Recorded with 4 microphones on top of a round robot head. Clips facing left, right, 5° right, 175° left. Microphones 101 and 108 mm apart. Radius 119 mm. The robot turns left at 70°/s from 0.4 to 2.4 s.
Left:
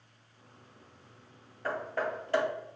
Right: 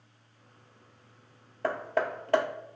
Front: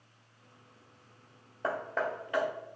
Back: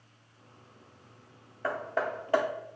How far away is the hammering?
About 0.5 m.